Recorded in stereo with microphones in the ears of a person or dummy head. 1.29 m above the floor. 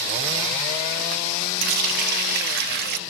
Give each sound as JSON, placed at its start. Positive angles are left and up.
{"t": 1.6, "sound": "a running tap", "side_deg": -60, "distance_m": 0.8}